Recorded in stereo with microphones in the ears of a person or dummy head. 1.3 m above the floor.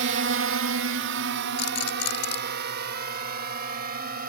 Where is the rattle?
60° left (ahead or behind).